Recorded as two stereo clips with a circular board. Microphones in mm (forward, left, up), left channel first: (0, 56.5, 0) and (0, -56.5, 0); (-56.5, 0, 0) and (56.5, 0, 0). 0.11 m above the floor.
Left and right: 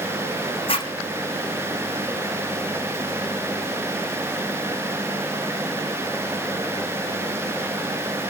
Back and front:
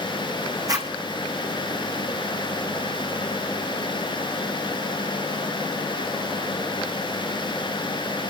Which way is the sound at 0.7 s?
55° left.